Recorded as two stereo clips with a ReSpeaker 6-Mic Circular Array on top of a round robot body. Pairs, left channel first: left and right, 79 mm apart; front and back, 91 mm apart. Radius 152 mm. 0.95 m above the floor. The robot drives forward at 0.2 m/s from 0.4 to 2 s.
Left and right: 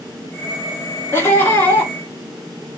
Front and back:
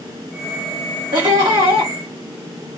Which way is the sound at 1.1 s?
150° left.